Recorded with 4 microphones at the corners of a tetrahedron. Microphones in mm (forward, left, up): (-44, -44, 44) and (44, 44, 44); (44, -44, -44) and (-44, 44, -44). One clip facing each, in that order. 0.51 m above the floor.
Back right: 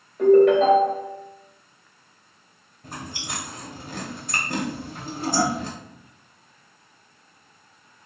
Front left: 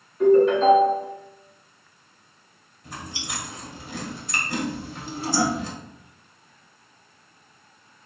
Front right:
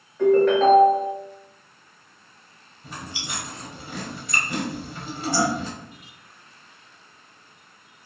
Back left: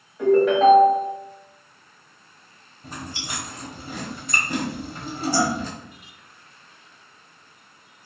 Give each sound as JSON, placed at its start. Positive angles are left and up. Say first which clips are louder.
{"t": 0.2, "sound": "a ringtone", "louder": "back right 2 dB, even", "azimuth_deg": -140, "distance_m": 1.3}
{"t": 2.8, "sound": "chewing", "louder": "back right 1 dB, back left 2 dB", "azimuth_deg": -175, "distance_m": 0.9}